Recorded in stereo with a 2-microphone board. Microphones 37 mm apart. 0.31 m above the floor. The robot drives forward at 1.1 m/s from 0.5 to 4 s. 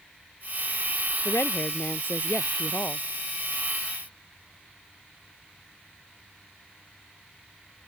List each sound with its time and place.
1.2 s a woman speaking: 70° left (ahead or behind); by 3.0 s 60° left (ahead or behind)